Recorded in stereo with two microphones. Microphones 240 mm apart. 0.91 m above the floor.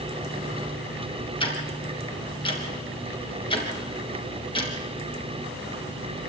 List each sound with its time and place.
1.4 s ticking: 20° left (ahead or behind), 3.5 m